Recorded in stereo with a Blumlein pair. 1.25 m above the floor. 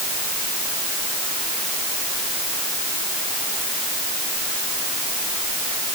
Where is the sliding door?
No sliding door in this recording.